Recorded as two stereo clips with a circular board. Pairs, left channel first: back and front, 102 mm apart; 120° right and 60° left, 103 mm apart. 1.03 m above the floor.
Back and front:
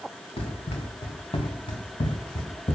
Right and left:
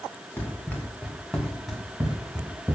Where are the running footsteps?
165° left, 4 m; by 2.8 s 130° left, 3 m.